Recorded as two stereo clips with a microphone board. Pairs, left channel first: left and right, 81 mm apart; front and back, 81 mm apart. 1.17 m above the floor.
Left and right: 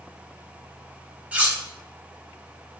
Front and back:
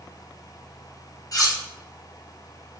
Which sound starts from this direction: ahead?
Cutlery clinking, at 1.3 s.